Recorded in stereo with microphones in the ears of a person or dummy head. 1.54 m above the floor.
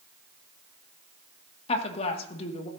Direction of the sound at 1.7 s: 35° left (ahead or behind).